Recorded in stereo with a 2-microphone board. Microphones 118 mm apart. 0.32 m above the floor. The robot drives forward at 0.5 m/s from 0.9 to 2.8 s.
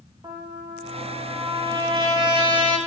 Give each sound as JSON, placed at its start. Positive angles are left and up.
{"t": 0.2, "sound": "a trumpet", "side_deg": -40, "distance_m": 5.5}